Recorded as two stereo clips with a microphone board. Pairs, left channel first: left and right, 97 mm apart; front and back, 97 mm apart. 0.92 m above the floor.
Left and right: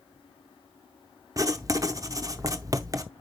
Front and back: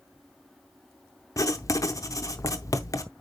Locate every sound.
1.4 s writing: 45° right, 0.6 m